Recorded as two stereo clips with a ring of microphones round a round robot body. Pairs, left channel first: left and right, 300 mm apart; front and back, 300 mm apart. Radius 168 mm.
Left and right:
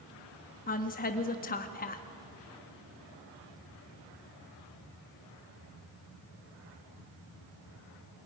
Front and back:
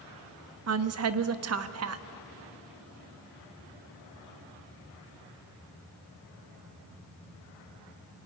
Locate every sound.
0.7 s a woman speaking: 150° left, 1.1 m